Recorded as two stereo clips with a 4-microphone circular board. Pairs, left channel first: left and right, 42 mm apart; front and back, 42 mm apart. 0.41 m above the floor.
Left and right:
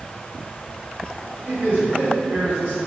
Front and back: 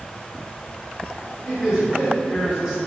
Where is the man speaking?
105° right, 1.6 m.